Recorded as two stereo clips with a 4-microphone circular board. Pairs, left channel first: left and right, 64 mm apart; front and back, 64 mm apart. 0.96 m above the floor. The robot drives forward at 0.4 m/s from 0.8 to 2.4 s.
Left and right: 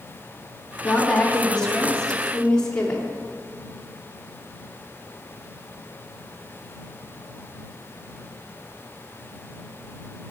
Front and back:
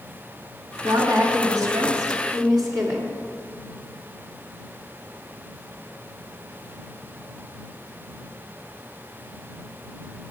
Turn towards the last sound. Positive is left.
turn(degrees=165)